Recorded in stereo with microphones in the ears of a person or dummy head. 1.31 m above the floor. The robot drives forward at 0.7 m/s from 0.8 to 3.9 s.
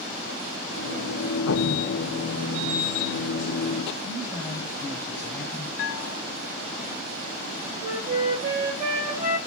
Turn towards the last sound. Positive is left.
turn(degrees=-40)  # may be behind; listen again after turning